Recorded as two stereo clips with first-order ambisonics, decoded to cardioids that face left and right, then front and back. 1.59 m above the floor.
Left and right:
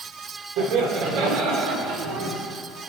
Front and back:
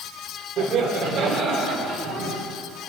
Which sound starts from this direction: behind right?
Laughter, at 0.6 s.